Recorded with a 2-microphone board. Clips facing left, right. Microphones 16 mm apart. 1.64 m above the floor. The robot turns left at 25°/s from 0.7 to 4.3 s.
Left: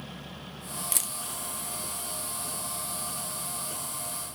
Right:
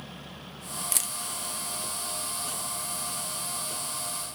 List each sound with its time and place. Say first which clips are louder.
0.9 s a camera shutter: right 1 dB; 15° right (ahead or behind), 0.8 m; by 1.1 s 20° right (ahead or behind), 0.8 m